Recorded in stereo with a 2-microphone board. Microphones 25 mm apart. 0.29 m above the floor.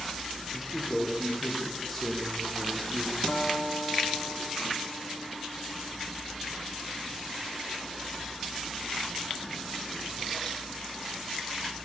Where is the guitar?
60° left (ahead or behind), 5 m.